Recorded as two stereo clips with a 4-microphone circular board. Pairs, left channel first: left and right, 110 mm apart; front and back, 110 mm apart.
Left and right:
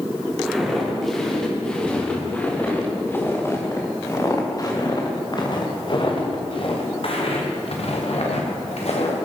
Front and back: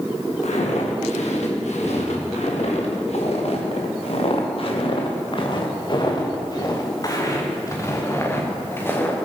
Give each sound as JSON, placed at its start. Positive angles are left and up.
{"t": 0.4, "sound": "footsteps", "azimuth_deg": 0, "distance_m": 5.0}